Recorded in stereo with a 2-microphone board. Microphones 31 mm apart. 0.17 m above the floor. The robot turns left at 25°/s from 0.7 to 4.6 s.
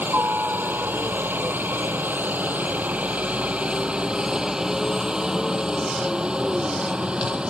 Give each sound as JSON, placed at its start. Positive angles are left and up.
{"t": 0.0, "sound": "a helicopter", "side_deg": -75}